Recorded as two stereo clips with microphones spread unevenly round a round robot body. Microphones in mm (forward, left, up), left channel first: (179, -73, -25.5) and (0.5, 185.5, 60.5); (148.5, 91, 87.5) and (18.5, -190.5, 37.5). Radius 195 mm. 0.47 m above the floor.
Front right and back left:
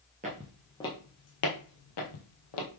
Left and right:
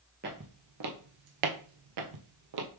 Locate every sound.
0.2 s footsteps: 175° left, 0.6 m; by 2.7 s 85° right, 1.2 m